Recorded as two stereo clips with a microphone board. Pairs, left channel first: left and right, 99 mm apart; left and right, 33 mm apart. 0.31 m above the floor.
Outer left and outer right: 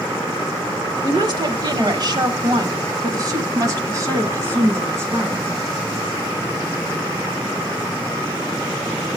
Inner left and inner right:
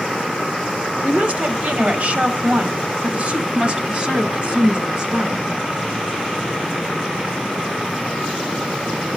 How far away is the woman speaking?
About 1.2 m.